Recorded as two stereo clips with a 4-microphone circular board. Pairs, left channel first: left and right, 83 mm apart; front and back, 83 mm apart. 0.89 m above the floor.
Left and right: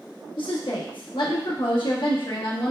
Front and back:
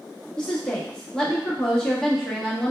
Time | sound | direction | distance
0.4 | a woman speaking | 80° left | 1.3 m